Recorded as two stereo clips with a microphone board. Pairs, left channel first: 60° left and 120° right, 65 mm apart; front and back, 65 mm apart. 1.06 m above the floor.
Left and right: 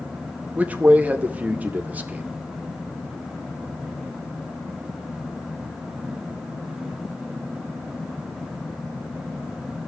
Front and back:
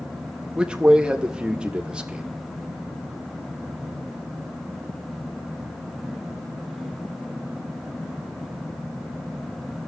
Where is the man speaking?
130° right, 0.6 m.